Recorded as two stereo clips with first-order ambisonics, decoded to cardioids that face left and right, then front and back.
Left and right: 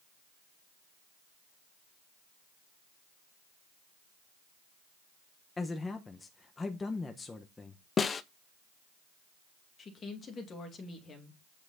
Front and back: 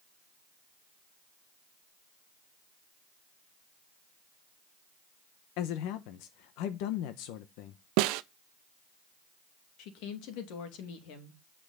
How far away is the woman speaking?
About 2.5 m.